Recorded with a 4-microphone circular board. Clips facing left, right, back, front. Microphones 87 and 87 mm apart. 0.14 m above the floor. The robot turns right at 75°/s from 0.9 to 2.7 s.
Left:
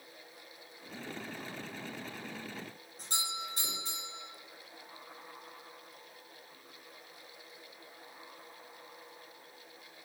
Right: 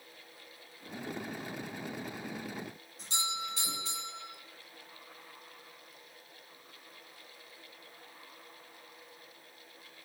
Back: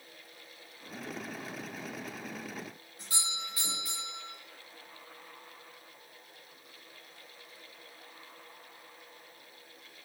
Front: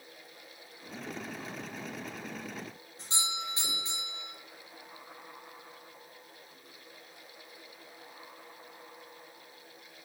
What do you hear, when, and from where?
3.0 s a doorbell: 60° left, 4 m